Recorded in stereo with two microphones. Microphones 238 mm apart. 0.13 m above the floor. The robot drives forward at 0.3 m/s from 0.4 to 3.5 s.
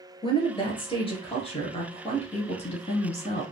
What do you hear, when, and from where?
0.2 s a woman speaking: 20° left (ahead or behind), 1.8 m; by 3.4 s 30° left (ahead or behind), 1.3 m